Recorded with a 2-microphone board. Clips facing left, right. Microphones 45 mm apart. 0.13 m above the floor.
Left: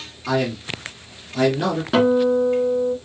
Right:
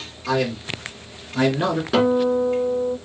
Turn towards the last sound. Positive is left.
turn(degrees=10)  # may be behind; listen again after turning